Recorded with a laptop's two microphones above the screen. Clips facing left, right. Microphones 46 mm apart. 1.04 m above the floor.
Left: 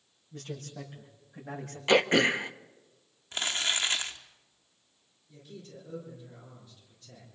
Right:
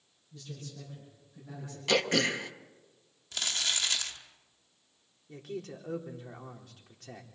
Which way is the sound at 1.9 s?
20° left (ahead or behind).